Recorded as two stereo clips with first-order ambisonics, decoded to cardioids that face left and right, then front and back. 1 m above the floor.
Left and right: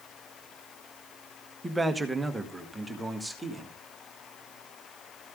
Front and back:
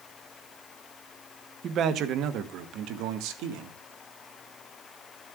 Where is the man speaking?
165° right, 0.9 m; by 3.8 s straight behind, 1.8 m.